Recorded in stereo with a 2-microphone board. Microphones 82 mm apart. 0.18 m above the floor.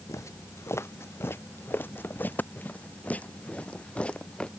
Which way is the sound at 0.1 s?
35° left (ahead or behind).